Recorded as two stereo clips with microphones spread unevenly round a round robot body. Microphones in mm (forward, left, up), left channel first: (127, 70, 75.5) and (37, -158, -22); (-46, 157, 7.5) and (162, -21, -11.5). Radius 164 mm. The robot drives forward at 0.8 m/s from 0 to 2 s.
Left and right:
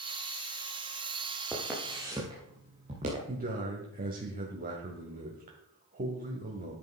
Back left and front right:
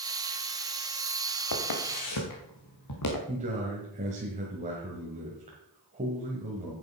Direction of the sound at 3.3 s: 100° right.